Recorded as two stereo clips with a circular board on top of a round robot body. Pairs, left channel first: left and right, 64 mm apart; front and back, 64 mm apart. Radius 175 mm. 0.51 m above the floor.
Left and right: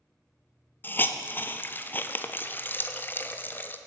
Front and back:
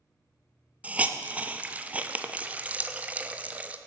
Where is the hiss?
125° left, 0.8 m.